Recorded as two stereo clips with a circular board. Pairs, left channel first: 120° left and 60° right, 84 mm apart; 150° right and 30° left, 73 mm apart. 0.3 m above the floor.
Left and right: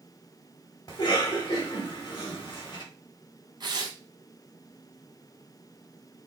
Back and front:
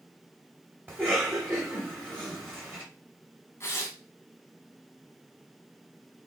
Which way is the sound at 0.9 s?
90° left.